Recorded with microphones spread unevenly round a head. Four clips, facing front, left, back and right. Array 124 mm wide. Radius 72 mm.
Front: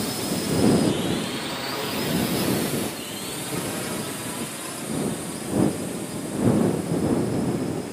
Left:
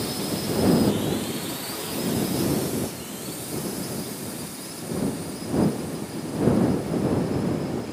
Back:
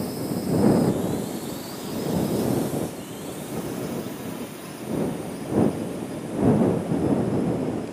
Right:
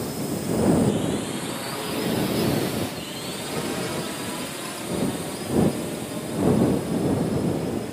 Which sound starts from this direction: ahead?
A drone, at 0.0 s.